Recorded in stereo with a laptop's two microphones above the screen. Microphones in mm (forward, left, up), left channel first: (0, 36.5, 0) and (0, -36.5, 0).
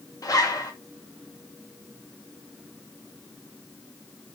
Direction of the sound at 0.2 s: 55° left (ahead or behind).